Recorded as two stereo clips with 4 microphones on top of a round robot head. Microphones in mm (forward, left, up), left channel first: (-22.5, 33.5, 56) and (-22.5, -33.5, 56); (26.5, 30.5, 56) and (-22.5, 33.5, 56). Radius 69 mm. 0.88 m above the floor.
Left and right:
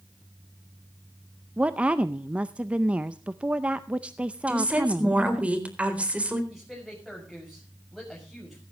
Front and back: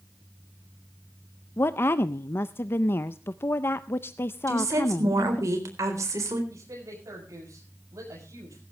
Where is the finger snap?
No finger snap in this recording.